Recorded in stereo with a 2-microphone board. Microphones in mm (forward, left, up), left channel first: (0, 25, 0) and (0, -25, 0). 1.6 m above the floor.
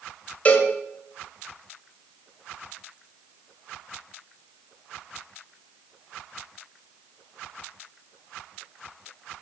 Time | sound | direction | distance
0.5 | a cowbell | 30° left (ahead or behind) | 1.9 m